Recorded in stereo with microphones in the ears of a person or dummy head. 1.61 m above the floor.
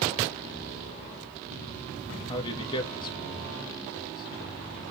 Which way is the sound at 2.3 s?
25° left (ahead or behind).